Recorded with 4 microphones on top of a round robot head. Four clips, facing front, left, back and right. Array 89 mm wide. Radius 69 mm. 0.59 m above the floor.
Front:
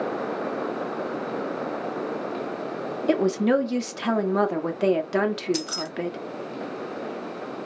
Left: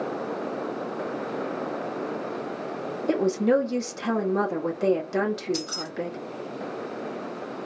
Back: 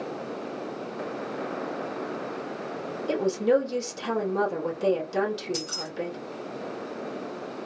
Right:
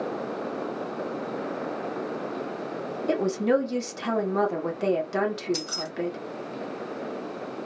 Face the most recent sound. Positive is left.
turn(degrees=-10)